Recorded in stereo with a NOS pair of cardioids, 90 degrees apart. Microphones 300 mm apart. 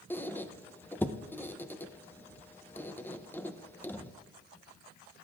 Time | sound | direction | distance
0.1 | a squeak | 5° left | 0.8 m